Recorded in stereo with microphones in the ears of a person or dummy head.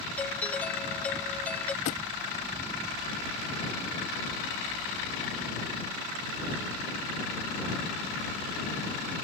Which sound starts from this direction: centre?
A doorbell, at 0.2 s.